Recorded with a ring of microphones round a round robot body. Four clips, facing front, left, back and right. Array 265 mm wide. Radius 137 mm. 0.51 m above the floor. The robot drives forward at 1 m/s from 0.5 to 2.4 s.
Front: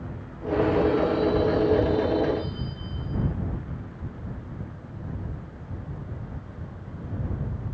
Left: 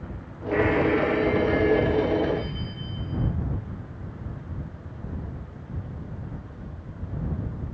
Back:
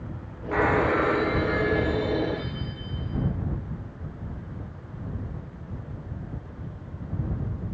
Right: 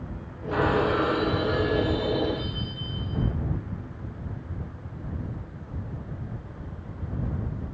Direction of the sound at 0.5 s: 160° right.